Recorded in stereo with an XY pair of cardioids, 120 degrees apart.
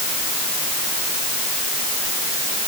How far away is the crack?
I don't hear a crack.